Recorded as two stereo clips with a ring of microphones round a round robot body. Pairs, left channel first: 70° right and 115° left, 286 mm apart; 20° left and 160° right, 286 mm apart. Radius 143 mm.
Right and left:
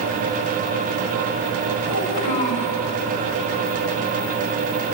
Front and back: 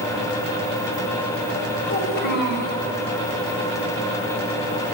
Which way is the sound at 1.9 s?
35° right.